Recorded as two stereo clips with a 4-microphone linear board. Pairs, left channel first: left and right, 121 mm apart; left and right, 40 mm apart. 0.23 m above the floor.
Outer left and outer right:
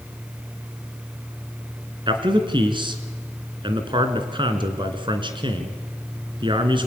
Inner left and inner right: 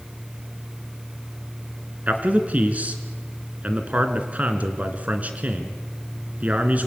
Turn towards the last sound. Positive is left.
turn(degrees=-40)  # may be behind; listen again after turning